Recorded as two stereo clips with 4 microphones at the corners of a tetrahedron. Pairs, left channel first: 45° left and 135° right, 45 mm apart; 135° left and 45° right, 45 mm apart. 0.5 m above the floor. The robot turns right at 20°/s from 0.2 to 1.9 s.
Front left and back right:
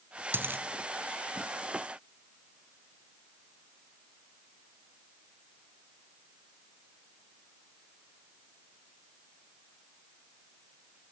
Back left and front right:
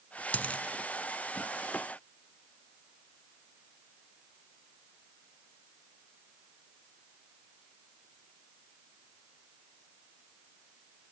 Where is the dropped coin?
170° right, 1.0 m; by 0.6 s 165° right, 1.0 m.